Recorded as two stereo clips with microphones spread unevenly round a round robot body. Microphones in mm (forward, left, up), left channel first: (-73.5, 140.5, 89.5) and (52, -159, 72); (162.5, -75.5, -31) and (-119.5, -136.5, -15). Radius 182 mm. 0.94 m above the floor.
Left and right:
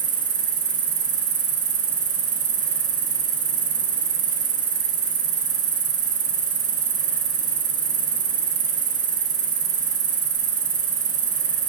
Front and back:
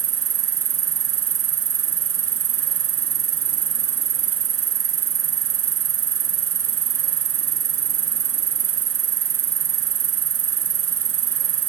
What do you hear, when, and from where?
0.0 s an insect: 135° right, 1.9 m